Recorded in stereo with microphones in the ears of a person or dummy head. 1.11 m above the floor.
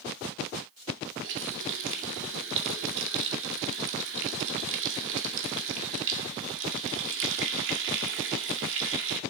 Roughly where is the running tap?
Right.